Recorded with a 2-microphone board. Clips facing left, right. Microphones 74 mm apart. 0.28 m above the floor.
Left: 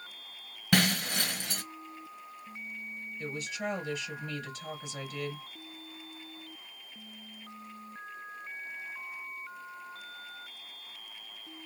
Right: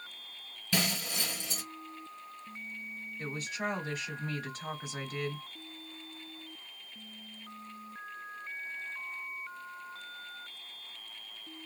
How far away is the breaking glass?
About 1.2 m.